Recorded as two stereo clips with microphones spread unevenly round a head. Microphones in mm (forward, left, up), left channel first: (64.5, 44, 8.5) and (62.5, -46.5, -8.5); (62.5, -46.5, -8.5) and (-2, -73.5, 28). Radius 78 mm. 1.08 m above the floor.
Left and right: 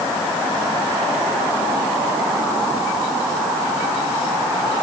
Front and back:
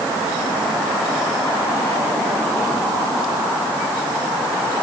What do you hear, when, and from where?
Only background noise.